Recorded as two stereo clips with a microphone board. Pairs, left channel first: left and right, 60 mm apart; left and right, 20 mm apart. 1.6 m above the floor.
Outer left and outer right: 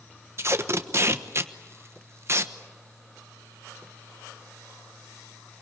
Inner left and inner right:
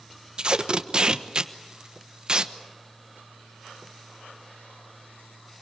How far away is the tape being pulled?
About 1.1 m.